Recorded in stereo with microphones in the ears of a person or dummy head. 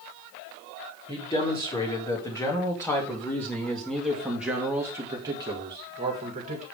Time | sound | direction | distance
1.1 | a man speaking | 25° left (ahead or behind) | 3.5 m